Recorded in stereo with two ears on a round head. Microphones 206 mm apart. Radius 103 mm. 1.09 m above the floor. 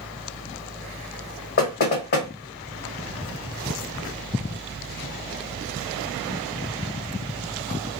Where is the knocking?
45° left (ahead or behind), 1.2 m.